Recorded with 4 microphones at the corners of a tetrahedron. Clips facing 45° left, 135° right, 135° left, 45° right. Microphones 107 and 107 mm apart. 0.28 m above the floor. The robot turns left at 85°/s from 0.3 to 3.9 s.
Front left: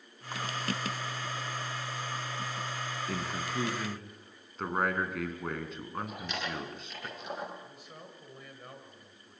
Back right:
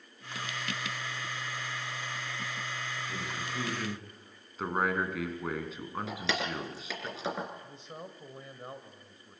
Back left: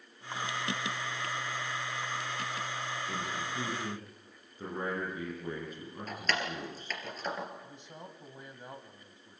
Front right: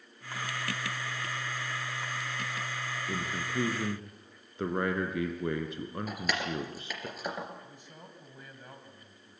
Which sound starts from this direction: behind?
A man speaking, at 7.6 s.